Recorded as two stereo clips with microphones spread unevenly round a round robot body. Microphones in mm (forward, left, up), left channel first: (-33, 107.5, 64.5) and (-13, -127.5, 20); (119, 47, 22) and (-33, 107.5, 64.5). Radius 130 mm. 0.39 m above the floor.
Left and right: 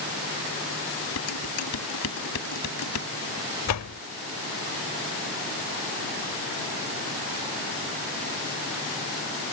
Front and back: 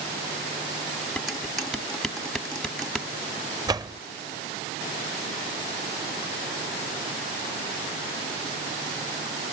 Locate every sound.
1.2 s dishes clattering: 65° left
3.7 s a door slam: 85° left